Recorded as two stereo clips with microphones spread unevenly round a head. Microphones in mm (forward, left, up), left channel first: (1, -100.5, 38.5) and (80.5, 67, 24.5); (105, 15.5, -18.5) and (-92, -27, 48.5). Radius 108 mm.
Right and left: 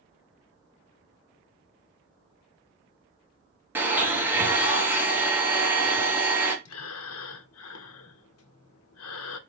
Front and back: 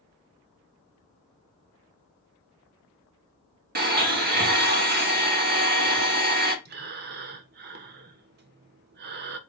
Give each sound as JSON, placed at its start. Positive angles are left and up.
{"t": 3.8, "sound": "a blender", "azimuth_deg": 140, "distance_m": 1.0}
{"t": 6.7, "sound": "breathing", "azimuth_deg": -135, "distance_m": 0.5}